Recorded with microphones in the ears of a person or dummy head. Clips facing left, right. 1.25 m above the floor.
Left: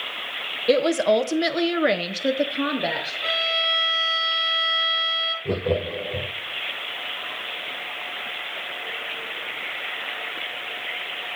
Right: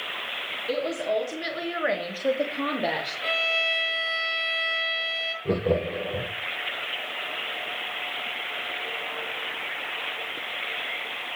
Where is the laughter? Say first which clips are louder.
Even; 5° right (ahead or behind), 0.9 m.